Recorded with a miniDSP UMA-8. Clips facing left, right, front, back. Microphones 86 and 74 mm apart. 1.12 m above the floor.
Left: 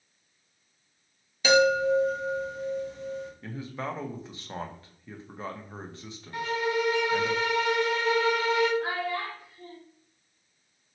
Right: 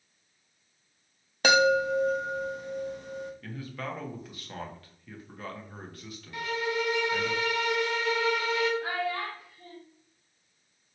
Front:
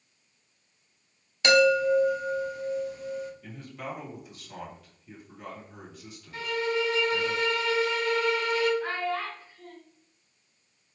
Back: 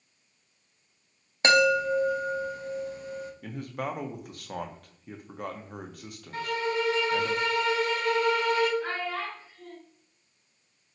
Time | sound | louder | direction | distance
1.4 | a chime | left 1 dB, front 1 dB | 125° right | 0.6 m
3.4 | a man speaking | left 3 dB, back 5 dB | 155° left | 0.6 m
6.3 | a violin | left 3 dB, even | 140° left | 0.8 m
8.8 | a child speaking | left 1 dB, front 2 dB | 95° left | 1.8 m